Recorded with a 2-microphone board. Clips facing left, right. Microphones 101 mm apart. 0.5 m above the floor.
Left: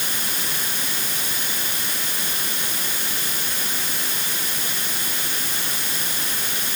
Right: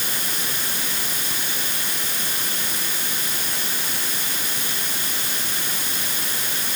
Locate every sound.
Only background noise.